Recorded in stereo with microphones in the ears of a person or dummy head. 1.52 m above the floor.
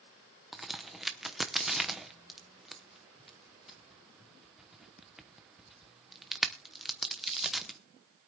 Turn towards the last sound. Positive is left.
turn(degrees=-5)  # may be behind; listen again after turning